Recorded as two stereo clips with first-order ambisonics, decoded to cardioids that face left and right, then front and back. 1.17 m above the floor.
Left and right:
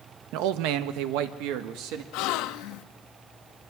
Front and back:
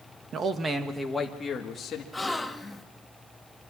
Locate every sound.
0.3 s a man speaking: 120° right, 1.3 m; by 2.0 s 60° right, 1.8 m
2.1 s a gasp: 85° left, 0.8 m